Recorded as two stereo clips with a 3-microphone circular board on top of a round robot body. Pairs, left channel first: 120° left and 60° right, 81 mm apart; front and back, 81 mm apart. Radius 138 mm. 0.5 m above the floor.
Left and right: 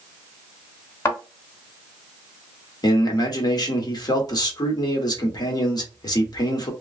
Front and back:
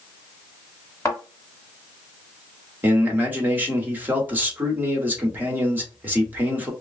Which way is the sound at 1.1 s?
65° left.